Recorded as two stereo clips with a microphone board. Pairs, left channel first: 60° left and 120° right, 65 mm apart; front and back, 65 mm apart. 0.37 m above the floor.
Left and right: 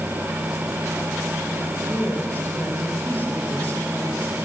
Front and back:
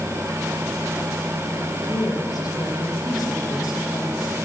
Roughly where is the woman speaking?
Ahead.